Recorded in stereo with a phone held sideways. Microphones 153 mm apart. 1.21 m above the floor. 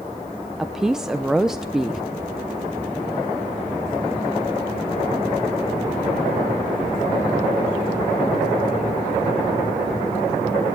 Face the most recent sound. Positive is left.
turn(degrees=-5)  # may be behind; listen again after turning